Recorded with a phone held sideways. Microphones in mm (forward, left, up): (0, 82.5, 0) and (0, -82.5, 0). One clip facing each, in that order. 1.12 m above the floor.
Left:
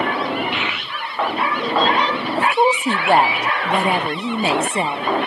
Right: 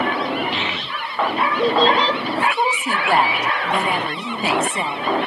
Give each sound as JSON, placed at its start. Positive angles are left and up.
{"t": 0.5, "sound": "a child speaking", "side_deg": -30, "distance_m": 1.7}
{"t": 2.4, "sound": "a woman speaking", "side_deg": 25, "distance_m": 0.6}